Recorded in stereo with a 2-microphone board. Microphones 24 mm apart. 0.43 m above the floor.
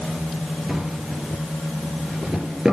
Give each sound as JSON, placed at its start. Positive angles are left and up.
{"t": 0.7, "sound": "a drawer", "side_deg": -25, "distance_m": 3.5}